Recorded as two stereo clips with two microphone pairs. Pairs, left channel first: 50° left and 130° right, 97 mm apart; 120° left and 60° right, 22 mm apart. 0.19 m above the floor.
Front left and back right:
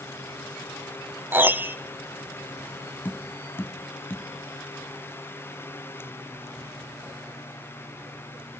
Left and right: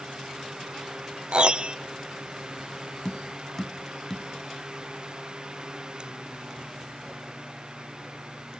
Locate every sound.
1.3 s a piano: 75° right, 0.7 m
3.0 s tapping: 90° left, 1.2 m